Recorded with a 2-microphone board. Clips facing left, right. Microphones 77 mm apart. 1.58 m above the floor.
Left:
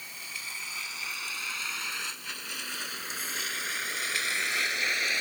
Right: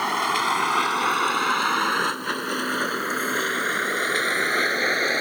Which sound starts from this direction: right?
A vehicle, at 0.0 s.